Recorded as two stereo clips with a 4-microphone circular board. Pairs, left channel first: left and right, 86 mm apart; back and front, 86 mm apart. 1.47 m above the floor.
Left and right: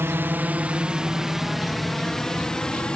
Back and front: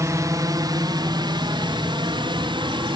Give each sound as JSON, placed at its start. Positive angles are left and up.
{"t": 0.0, "sound": "a drone", "azimuth_deg": -40}